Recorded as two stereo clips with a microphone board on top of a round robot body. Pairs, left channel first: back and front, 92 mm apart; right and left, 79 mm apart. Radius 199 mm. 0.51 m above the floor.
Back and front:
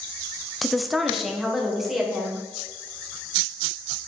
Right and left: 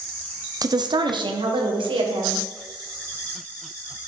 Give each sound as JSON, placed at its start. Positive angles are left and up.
{"t": 0.6, "sound": "a woman speaking", "azimuth_deg": 90, "distance_m": 0.9}